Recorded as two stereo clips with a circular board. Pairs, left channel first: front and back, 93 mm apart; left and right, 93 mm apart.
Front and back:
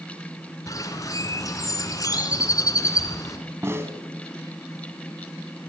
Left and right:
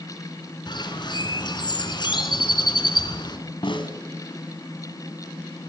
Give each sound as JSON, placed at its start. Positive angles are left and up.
{"t": 0.7, "sound": "a bird", "azimuth_deg": 50, "distance_m": 2.5}
{"t": 3.6, "sound": "a snare drum", "azimuth_deg": 115, "distance_m": 2.5}